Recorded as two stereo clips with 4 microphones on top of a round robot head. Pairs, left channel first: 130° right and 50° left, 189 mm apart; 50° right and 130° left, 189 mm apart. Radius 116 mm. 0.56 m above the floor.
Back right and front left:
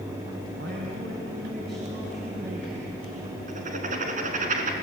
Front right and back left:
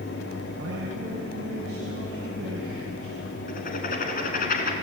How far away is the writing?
About 2.5 m.